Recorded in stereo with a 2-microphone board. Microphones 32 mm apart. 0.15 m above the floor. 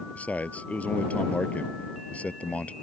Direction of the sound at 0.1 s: 45° left (ahead or behind).